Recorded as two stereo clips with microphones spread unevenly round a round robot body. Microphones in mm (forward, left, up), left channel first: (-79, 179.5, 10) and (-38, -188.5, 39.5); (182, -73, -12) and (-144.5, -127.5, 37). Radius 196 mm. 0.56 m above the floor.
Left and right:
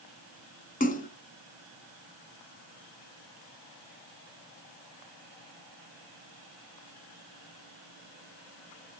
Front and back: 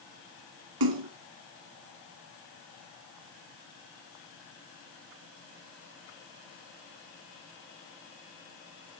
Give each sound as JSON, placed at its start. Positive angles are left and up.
{"t": 0.8, "sound": "a splash", "azimuth_deg": 165, "distance_m": 1.2}